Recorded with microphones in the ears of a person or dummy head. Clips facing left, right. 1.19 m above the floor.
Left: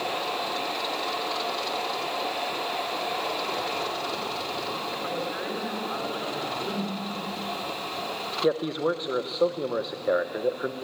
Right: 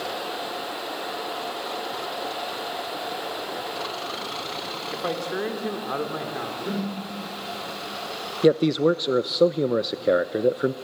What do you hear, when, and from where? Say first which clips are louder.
4.9 s a man speaking: right 7 dB; 60° right (ahead or behind), 2.5 m
6.7 s a whoosh: right 5 dB; 25° right (ahead or behind), 2.5 m
8.4 s a man speaking: right 7 dB; 40° right (ahead or behind), 0.6 m